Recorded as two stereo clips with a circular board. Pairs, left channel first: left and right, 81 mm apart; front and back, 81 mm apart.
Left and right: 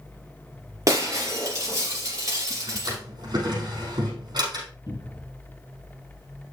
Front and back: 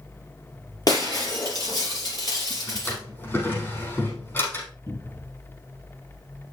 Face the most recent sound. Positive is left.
turn(degrees=55)